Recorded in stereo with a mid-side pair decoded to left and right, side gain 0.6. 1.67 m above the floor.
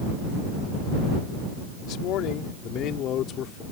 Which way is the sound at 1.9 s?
70° left.